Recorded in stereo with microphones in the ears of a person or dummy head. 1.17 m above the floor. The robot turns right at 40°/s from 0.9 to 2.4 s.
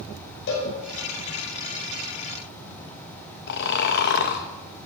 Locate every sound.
0.5 s a cowbell: 65° left (ahead or behind), 5.5 m
3.5 s snoring: 55° left (ahead or behind), 1.2 m